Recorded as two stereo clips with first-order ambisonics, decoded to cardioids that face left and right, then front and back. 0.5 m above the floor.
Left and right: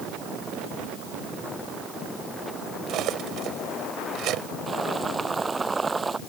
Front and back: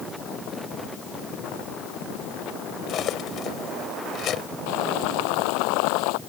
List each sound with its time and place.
2.9 s cutlery clinking: 50° right
4.7 s boiling: 15° right